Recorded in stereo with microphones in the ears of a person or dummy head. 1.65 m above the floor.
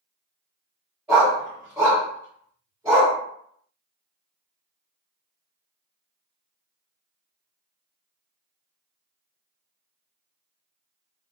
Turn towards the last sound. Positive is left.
turn(degrees=-10)  # may be behind; listen again after turning